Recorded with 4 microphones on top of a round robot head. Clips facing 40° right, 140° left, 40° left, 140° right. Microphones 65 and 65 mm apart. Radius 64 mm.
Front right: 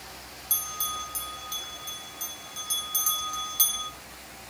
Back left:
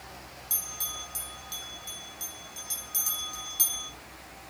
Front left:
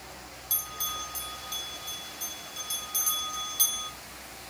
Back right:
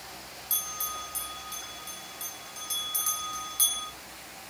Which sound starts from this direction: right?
A bell, at 0.5 s.